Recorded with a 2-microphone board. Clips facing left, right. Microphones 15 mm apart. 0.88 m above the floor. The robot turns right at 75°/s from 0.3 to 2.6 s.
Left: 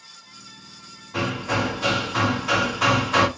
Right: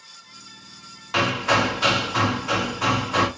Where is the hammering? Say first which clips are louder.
Right 5 dB; 90° right, 0.7 m; by 3.3 s 20° left, 0.7 m.